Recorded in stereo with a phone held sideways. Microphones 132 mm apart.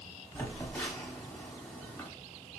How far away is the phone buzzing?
About 0.9 m.